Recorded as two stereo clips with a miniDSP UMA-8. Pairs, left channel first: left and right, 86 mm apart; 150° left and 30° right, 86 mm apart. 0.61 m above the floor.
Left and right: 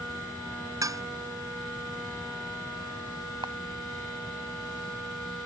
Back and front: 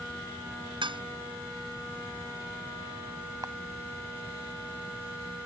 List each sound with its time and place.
0.8 s dishes clattering: 40° right
3.4 s a camera shutter: 70° right